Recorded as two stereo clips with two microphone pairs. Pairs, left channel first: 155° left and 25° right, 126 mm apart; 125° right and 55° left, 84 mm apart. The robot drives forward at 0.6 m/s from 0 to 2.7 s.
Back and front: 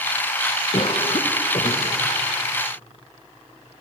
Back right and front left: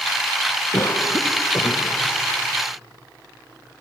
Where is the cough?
170° right, 1.2 m; by 2.0 s 175° right, 1.9 m.